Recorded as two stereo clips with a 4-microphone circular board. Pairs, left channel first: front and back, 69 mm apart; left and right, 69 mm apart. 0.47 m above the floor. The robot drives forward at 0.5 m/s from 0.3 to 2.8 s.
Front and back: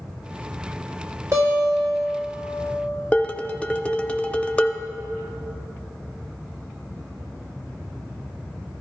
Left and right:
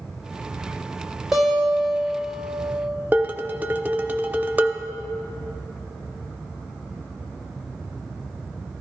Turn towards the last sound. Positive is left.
turn(degrees=-50)